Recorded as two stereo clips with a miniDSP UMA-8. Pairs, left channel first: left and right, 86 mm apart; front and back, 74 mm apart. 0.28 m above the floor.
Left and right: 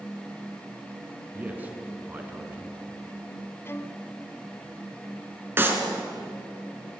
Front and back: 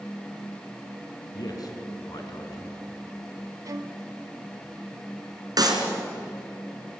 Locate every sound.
1.3 s a man speaking: 20° right, 3.5 m
3.6 s a violin: 150° left, 1.0 m
5.6 s a clap: 155° right, 3.5 m